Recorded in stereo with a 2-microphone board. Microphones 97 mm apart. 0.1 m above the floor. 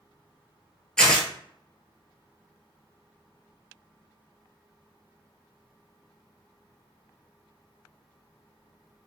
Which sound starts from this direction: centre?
Tearing paper, at 1.0 s.